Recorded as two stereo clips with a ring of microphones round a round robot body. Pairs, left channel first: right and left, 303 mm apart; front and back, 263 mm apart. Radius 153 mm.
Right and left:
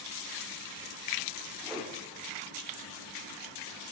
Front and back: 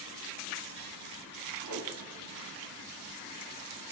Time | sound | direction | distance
1.6 | a whoosh | straight behind | 1.1 m